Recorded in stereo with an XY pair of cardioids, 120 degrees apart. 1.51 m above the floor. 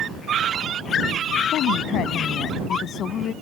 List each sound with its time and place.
1.5 s a woman speaking: 65° left; by 3.3 s 50° left